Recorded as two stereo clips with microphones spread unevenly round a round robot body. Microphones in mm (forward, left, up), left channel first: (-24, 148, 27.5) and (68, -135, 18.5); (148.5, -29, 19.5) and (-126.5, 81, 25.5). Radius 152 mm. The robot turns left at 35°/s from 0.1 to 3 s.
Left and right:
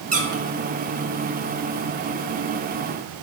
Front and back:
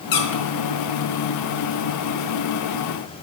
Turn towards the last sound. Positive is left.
turn(degrees=-105)